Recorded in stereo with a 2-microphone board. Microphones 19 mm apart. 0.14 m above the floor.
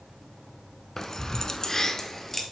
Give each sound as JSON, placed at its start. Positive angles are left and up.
{"t": 1.0, "sound": "keys jangling", "side_deg": 25, "distance_m": 1.0}